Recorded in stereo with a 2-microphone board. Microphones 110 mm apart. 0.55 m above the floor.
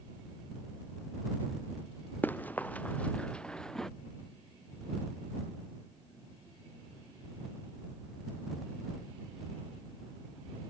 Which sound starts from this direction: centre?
Running footsteps, at 2.2 s.